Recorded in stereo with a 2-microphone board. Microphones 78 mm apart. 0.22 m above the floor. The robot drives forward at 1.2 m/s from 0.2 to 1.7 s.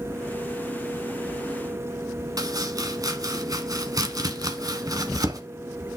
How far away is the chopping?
About 1.0 m.